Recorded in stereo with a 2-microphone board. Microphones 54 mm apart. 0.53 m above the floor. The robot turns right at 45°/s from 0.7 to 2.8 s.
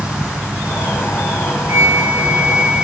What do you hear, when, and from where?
1.7 s a flute: 60° right, 0.9 m; by 2.9 s 10° right, 0.9 m